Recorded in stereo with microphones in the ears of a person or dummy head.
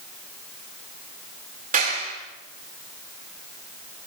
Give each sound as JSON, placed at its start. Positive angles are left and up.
{"t": 1.7, "sound": "a clap", "side_deg": -45, "distance_m": 4.5}